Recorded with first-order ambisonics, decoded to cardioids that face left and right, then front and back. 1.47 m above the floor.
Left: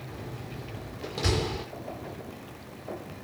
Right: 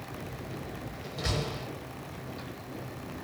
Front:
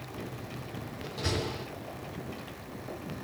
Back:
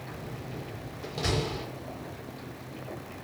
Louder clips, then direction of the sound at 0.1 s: Left 1 dB, front 1 dB; 110° left.